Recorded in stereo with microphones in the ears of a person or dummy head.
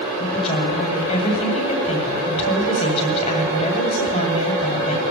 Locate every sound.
0.2 s a woman speaking: 35° left (ahead or behind), 8 m